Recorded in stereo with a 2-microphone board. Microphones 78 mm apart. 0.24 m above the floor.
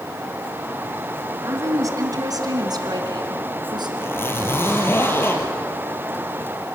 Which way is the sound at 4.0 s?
30° left (ahead or behind).